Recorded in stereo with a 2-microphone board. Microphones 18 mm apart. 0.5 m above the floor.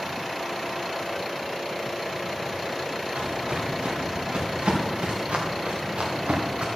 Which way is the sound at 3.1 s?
75° right (ahead or behind).